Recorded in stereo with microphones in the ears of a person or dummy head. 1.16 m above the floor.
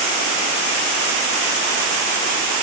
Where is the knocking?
I don't hear knocking.